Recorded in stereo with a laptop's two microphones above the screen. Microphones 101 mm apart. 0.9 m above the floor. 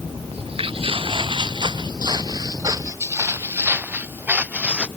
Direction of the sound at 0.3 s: 70° right (ahead or behind).